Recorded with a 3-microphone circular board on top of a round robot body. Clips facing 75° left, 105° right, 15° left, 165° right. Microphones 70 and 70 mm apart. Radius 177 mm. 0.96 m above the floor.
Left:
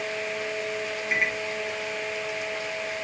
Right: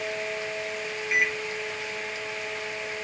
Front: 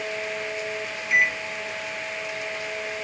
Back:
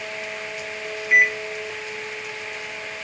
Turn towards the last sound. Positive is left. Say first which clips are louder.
# right 1 dB, back 4 dB
turn(degrees=140)